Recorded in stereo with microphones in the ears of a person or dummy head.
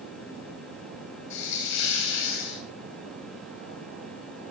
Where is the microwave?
I don't hear a microwave.